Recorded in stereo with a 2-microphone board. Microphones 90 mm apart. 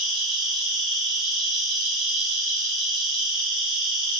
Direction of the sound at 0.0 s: 5° right (ahead or behind).